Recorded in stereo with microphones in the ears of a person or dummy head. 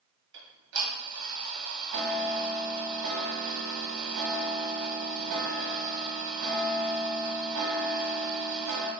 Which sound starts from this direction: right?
Ticking, at 0.3 s.